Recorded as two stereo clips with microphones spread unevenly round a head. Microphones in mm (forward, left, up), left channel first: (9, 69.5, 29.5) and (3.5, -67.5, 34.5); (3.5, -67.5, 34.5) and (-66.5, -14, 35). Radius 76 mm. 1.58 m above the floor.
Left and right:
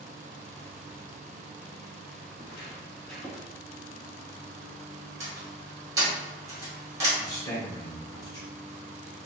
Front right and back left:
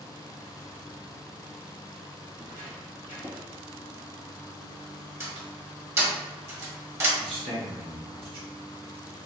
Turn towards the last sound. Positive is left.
turn(degrees=155)